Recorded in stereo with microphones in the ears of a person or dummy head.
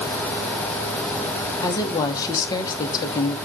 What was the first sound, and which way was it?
A woman speaking, 25° left (ahead or behind).